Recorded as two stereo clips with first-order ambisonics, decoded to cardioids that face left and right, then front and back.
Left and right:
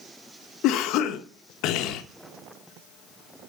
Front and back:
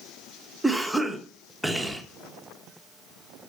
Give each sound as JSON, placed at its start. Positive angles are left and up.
{"t": 0.6, "sound": "a cough", "azimuth_deg": 90, "distance_m": 0.8}